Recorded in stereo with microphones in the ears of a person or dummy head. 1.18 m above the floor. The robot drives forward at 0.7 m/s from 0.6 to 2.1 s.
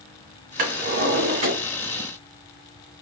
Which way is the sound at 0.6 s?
40° right (ahead or behind).